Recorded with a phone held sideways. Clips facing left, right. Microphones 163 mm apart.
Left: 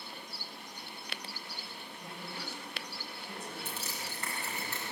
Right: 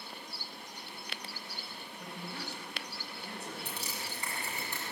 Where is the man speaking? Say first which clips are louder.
Right 2 dB; 90° right, 7 m; by 3.5 s 85° right, 9 m.